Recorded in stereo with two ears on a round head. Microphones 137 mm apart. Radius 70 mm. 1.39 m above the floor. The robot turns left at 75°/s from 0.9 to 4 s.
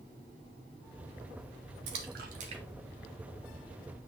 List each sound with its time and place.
1.9 s a splash: 85° right, 1.9 m; by 3.8 s 55° left (ahead or behind), 1.9 m